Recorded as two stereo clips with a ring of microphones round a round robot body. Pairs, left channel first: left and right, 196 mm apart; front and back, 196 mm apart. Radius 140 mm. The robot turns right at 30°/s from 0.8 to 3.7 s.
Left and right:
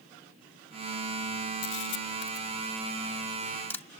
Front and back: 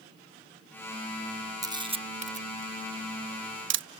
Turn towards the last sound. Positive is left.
turn(degrees=170)